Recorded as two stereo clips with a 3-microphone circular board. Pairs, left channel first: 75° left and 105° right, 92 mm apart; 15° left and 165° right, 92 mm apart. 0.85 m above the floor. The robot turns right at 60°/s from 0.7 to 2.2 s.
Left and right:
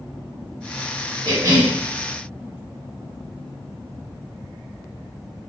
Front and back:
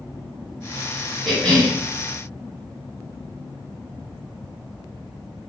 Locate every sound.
1.2 s a cough: 75° right, 1.4 m; by 1.8 s 45° right, 1.4 m